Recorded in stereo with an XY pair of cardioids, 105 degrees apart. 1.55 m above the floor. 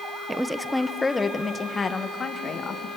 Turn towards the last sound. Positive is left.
turn(degrees=45)